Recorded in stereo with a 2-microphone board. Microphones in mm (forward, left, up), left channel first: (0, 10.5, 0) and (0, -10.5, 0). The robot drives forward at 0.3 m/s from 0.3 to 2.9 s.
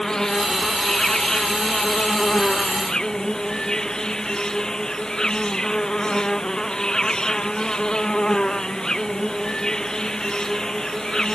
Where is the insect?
35° left (ahead or behind); by 11.3 s 40° left (ahead or behind).